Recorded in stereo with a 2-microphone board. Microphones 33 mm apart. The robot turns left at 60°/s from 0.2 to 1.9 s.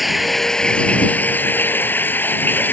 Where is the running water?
Straight behind; by 2.8 s 80° left.